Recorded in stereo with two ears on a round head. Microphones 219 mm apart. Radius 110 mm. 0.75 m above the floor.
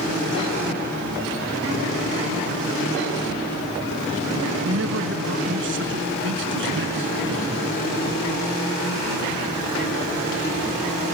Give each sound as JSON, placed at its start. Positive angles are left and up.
{"t": 4.6, "sound": "a man speaking", "side_deg": -55}